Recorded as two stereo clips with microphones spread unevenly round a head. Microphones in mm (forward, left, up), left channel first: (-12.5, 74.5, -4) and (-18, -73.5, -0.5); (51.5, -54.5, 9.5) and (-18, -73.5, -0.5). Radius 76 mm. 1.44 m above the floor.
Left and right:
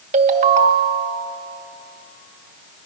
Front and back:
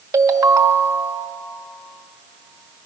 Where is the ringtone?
125° right, 1.2 m.